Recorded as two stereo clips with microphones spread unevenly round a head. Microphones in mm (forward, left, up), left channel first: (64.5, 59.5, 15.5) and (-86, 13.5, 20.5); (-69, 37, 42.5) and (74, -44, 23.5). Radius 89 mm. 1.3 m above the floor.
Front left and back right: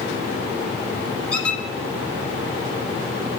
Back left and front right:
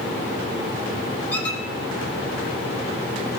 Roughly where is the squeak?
Left.